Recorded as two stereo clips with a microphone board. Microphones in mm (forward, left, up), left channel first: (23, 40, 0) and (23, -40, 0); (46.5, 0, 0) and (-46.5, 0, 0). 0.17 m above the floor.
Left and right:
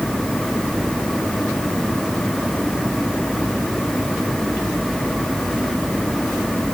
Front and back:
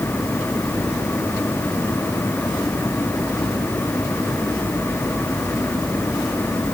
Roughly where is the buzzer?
I don't hear a buzzer.